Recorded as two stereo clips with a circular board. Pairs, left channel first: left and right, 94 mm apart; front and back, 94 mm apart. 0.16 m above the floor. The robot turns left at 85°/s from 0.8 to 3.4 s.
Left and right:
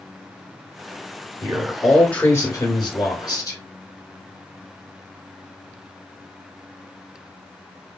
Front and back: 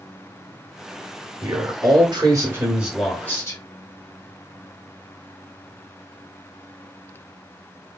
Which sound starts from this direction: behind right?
A man speaking, at 1.4 s.